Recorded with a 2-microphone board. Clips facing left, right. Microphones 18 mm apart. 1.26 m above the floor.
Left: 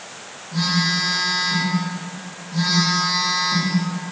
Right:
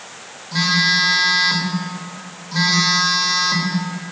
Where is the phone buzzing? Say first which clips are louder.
Right 4 dB; 60° right (ahead or behind), 1.2 m.